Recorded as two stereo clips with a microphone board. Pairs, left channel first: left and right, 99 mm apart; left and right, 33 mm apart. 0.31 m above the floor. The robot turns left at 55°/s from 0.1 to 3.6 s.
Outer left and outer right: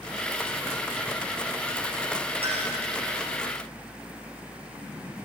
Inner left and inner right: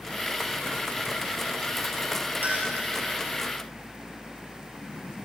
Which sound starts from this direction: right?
A clink, at 2.4 s.